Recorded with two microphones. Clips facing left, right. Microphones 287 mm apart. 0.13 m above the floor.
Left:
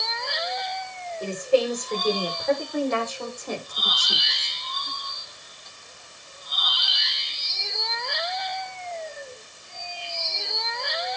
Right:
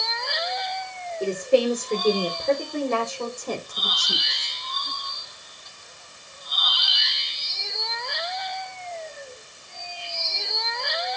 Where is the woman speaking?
35° right (ahead or behind), 7 m; by 4.5 s 40° right (ahead or behind), 6 m.